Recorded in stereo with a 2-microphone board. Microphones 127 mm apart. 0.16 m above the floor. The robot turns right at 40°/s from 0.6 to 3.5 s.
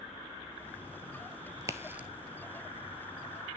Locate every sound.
1.6 s a crack: 30° right (ahead or behind), 0.6 m; by 2.1 s 10° right (ahead or behind), 0.6 m